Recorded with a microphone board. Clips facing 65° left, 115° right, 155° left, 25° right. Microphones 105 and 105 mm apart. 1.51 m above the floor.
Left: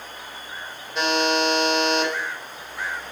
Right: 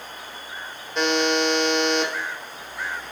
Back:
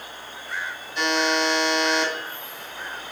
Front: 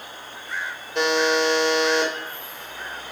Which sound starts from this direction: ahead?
A buzzer, at 0.9 s.